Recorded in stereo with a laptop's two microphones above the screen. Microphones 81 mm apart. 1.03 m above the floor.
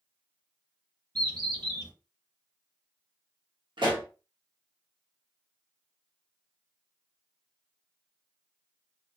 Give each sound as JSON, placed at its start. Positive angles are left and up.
{"t": 1.1, "sound": "a bird", "side_deg": -60, "distance_m": 1.6}
{"t": 3.8, "sound": "a pop", "side_deg": -75, "distance_m": 0.9}